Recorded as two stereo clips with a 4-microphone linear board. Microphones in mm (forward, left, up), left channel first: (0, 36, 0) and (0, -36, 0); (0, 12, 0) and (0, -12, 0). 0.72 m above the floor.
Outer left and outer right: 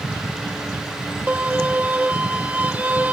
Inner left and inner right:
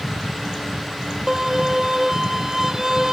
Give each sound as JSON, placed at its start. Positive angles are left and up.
{"t": 1.3, "sound": "a violin", "side_deg": -20}